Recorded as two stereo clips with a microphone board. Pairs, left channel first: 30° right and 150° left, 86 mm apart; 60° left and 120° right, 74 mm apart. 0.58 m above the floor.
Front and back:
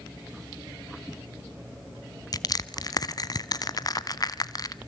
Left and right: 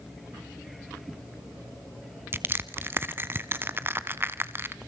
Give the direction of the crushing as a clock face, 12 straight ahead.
2 o'clock.